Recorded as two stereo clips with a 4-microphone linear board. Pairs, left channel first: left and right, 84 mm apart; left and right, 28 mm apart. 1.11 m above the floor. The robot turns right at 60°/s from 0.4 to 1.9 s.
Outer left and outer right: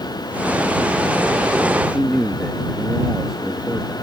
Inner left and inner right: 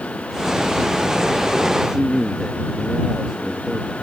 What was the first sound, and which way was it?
A man speaking, 10° right (ahead or behind).